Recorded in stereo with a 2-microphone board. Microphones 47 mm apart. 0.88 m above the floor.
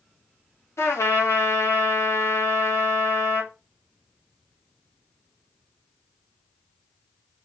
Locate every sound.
0.8 s a trumpet: 80° left, 1.0 m